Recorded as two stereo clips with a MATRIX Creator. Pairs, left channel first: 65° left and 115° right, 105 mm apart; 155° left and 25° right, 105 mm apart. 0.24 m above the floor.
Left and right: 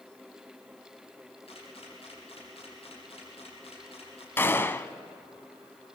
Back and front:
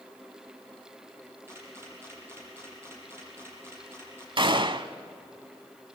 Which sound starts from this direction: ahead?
A gunshot, at 4.4 s.